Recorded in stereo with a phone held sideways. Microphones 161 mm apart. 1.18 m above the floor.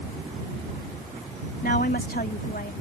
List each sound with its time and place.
1.6 s a woman speaking: 70° left (ahead or behind)